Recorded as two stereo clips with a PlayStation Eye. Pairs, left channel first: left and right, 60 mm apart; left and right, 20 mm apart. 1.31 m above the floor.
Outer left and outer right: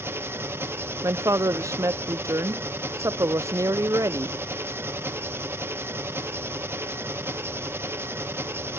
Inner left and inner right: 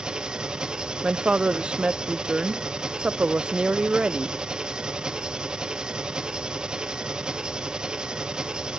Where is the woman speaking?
55° right (ahead or behind), 0.6 m.